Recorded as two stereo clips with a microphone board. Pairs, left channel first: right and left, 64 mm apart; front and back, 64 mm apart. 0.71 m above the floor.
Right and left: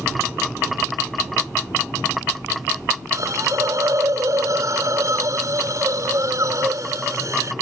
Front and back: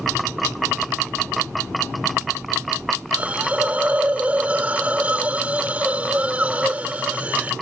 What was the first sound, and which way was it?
A hiss, 115° left.